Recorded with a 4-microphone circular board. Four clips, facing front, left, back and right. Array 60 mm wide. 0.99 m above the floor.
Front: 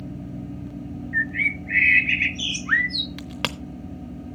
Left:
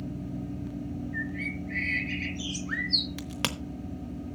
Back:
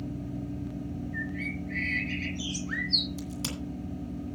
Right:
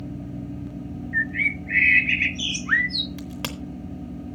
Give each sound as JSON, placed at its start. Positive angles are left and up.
{"t": 1.1, "sound": "a bird", "azimuth_deg": -40, "distance_m": 0.6}
{"t": 3.2, "sound": "a crack", "azimuth_deg": 10, "distance_m": 0.9}